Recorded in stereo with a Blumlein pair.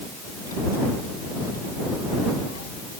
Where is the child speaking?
65° left; by 2.8 s 60° left.